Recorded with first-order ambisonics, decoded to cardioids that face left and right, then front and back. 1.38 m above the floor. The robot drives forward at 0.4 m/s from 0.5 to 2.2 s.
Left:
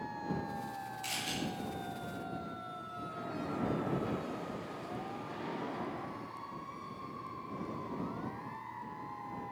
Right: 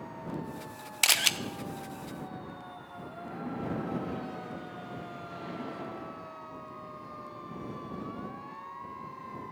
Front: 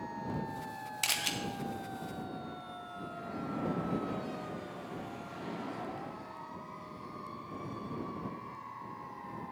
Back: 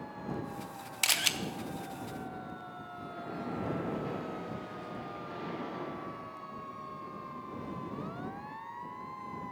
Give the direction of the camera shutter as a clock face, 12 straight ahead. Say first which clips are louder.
Right 15 dB, back 4 dB; 3 o'clock.